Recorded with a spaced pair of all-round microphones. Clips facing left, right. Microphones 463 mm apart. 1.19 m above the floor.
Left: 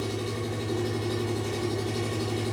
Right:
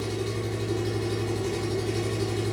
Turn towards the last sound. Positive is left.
turn(degrees=-45)  # may be behind; listen again after turning